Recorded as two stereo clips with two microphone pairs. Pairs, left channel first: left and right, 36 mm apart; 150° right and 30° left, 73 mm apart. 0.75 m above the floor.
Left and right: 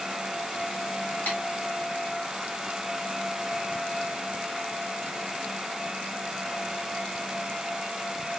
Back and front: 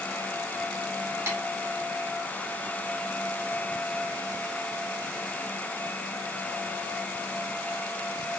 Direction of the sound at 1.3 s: 65° left.